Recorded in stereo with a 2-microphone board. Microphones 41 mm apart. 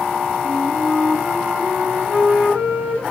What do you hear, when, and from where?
0.4 s a flute: 45° right (ahead or behind), 5 m